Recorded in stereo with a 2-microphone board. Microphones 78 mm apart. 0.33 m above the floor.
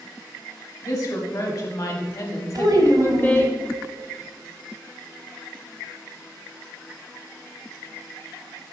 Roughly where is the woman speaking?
Left.